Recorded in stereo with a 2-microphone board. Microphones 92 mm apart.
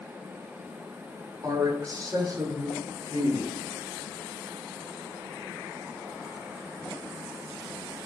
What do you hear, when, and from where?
1.4 s a man speaking: 40° right (ahead or behind), 2.5 m; by 3.5 s 35° right (ahead or behind), 4 m